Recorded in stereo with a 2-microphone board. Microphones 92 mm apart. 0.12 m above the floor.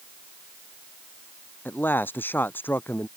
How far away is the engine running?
I don't hear an engine running.